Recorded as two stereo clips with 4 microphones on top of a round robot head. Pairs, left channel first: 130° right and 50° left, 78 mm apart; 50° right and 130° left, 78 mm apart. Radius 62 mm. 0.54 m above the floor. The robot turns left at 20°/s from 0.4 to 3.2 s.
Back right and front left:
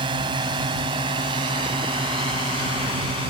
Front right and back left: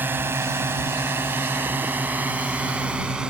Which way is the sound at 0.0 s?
65° left.